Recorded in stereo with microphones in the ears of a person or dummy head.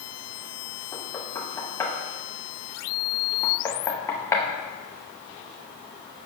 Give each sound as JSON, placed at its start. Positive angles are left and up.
{"t": 0.9, "sound": "knocking", "side_deg": 15, "distance_m": 0.9}